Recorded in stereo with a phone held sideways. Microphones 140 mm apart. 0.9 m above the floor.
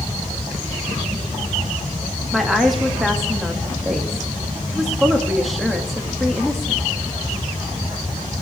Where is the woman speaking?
Centre (ahead or behind), 1.4 m.